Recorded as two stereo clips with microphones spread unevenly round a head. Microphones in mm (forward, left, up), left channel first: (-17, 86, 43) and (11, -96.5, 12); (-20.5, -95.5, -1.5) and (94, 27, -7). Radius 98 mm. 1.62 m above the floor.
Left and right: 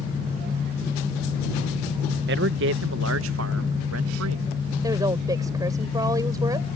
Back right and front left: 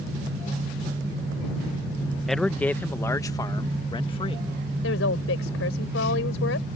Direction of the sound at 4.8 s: 155° right.